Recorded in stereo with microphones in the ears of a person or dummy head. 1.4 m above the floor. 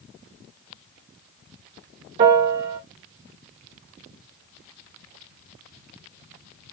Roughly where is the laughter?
No laughter in this recording.